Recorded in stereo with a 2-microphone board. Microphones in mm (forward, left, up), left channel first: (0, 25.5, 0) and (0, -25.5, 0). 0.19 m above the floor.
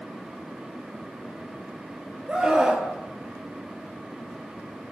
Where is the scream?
15° right (ahead or behind), 5 m.